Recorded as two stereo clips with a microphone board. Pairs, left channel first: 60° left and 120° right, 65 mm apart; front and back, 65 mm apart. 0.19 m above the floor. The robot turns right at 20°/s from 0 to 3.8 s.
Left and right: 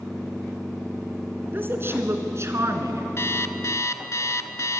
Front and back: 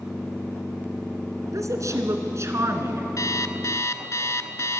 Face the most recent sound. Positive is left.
turn(degrees=30)